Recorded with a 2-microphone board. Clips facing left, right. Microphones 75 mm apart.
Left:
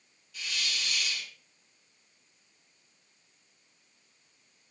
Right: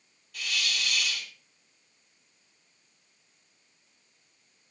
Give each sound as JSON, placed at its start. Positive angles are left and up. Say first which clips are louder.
{"t": 0.3, "sound": "a hiss", "louder": "right 4 dB", "side_deg": -60, "distance_m": 5.0}